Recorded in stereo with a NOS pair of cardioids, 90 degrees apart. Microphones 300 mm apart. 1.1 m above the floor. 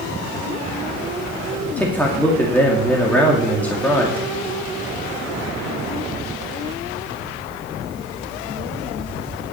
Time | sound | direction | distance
1.8 | a man speaking | 5° left | 2.5 m